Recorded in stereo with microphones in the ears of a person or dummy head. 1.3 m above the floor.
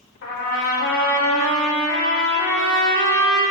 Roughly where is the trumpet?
Left.